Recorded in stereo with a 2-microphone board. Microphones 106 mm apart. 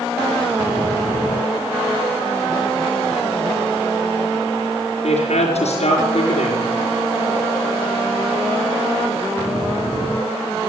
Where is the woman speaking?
75° left (ahead or behind), 4.5 m.